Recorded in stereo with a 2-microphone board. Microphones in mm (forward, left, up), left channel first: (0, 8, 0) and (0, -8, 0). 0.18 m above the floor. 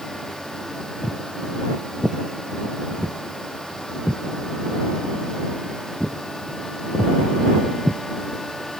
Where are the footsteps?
20° left (ahead or behind); by 8.0 s 10° right (ahead or behind).